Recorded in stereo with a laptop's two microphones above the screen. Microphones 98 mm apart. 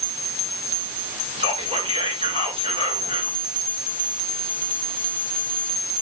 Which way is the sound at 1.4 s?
80° right.